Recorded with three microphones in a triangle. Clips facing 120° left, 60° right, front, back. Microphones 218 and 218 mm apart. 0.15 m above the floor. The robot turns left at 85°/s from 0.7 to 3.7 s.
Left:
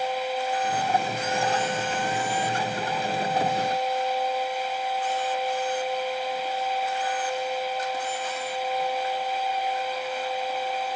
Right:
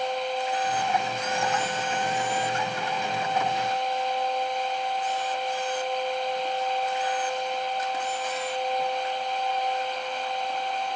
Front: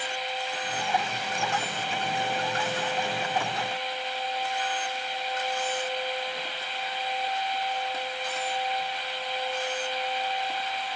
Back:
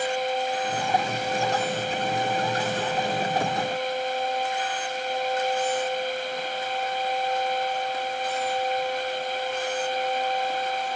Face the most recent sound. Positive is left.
No sound to turn to.